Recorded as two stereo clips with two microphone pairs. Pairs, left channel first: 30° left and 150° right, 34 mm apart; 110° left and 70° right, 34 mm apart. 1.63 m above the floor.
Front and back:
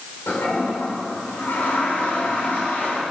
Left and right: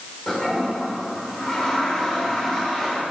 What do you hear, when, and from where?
0.3 s a toilet flushing: 35° left, 4.5 m